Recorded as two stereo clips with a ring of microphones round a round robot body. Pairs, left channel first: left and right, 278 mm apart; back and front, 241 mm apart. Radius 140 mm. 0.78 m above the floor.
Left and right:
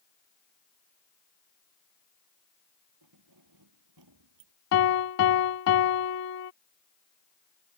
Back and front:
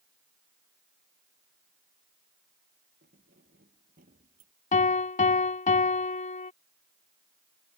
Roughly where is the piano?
Behind left.